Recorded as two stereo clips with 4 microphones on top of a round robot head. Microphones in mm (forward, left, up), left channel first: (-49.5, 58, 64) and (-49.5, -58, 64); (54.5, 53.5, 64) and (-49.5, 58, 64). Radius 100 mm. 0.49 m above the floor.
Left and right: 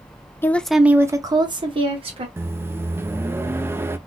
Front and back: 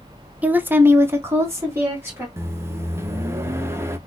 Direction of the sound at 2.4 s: 140° right.